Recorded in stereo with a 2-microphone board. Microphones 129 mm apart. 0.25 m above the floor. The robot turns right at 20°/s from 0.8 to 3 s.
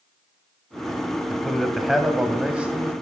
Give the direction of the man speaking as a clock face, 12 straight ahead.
6 o'clock.